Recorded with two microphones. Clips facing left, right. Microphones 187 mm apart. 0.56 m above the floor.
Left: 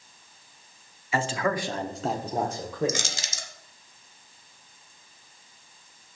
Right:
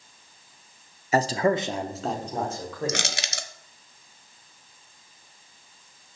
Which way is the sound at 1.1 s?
40° right (ahead or behind).